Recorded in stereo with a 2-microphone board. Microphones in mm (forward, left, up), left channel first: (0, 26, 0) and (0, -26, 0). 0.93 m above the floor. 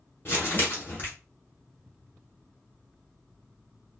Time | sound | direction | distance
0.2 | crumpling | 40° left (ahead or behind) | 2 m